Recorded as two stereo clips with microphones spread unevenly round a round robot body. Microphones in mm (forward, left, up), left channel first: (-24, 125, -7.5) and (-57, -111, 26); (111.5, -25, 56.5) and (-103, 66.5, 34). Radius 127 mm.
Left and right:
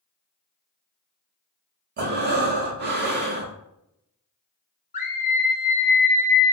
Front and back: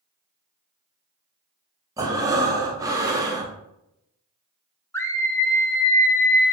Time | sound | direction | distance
2.0 | breathing | 140° right | 0.7 m
4.9 | a scream | 60° left | 0.7 m